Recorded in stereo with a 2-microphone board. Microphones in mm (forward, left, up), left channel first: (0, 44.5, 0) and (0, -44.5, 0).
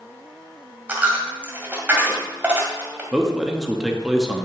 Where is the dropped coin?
20° right (ahead or behind), 1.9 m.